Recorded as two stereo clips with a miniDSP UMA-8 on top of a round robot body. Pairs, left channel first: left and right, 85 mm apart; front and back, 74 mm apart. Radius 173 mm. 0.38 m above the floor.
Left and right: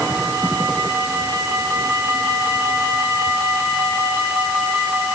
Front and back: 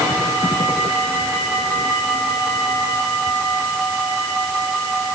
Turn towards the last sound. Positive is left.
No sound to turn to.